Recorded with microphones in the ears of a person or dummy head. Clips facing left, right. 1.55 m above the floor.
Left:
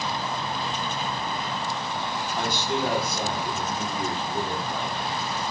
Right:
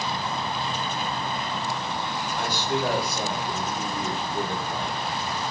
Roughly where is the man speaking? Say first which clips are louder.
Even; centre.